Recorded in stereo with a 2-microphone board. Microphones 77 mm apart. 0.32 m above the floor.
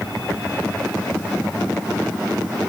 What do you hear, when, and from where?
Only background noise.